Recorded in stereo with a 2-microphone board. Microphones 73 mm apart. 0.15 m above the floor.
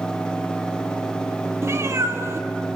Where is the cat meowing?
40° right (ahead or behind), 1.7 m.